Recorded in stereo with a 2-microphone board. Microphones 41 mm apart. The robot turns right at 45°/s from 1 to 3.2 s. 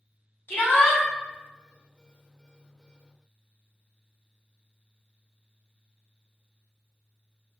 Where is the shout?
70° left (ahead or behind), 1.4 m.